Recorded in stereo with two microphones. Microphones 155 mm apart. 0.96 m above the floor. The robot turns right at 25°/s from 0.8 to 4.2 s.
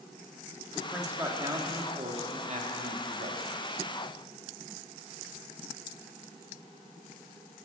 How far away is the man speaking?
About 1.4 m.